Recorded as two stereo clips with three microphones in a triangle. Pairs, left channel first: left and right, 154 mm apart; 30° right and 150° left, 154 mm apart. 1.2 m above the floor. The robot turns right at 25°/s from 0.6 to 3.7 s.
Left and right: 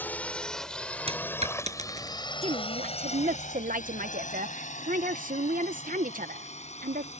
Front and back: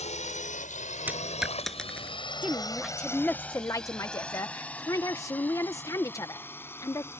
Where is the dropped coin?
135° right; by 2.2 s 105° right.